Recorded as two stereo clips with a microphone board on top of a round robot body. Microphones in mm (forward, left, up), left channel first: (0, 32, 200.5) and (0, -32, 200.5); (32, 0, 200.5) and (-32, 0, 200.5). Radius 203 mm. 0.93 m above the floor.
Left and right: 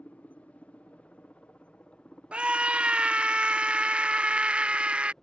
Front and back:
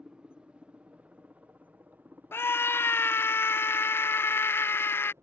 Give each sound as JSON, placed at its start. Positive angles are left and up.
{"t": 0.0, "sound": "a helicopter", "azimuth_deg": 125}
{"t": 2.3, "sound": "a scream", "azimuth_deg": -25}